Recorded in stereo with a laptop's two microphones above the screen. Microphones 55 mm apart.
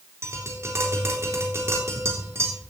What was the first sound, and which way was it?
Tapping, 50° right (ahead or behind).